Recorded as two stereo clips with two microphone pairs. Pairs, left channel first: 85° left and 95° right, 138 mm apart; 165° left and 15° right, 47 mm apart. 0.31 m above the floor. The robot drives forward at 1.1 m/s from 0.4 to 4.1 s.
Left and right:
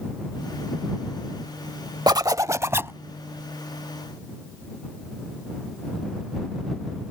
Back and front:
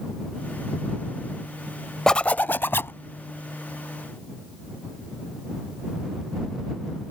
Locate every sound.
2.1 s a zipper: 120° right; by 3.0 s 170° right